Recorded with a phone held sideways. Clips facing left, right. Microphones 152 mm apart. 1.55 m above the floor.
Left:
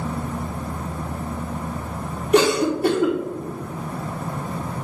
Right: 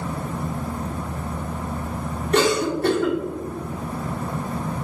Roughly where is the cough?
Centre.